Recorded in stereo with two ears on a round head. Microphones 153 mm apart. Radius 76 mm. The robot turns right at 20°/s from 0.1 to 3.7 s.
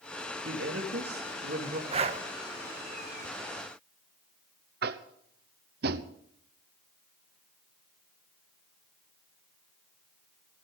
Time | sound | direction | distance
0.5 | a woman speaking | 80° right | 2.5 m
1.9 | breathing | 35° right (ahead or behind) | 0.9 m
4.8 | tapping | 60° right (ahead or behind) | 0.8 m